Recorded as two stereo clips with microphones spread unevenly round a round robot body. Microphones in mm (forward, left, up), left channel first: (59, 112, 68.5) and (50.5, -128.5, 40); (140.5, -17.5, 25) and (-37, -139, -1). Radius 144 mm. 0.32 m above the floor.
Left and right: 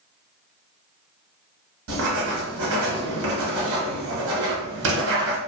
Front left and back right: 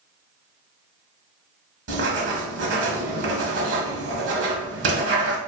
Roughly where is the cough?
I don't hear a cough.